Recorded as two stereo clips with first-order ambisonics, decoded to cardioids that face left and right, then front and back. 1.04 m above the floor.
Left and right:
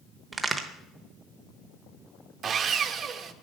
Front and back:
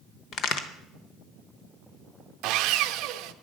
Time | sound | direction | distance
0.3 | a crack | 15° right | 0.8 m
2.4 | sawing | 150° right | 0.6 m